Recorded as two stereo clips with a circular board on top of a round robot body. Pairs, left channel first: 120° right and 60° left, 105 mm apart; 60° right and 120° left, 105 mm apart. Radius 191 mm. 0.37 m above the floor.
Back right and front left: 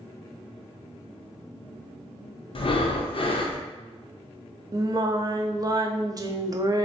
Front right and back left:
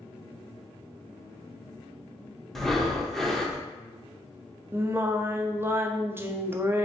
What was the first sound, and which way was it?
Breathing, 150° right.